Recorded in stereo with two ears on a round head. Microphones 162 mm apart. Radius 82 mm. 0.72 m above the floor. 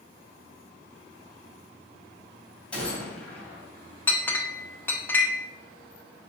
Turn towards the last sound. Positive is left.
turn(degrees=10)  # may be behind; listen again after turning